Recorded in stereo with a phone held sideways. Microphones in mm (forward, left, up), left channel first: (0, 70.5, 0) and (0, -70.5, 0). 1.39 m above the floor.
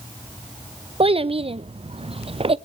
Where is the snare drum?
I don't hear a snare drum.